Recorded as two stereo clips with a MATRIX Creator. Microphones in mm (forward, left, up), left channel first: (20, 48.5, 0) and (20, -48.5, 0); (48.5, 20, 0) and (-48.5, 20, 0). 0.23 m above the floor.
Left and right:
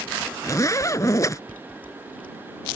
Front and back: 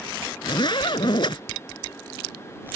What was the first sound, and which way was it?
A zipper, 35° left.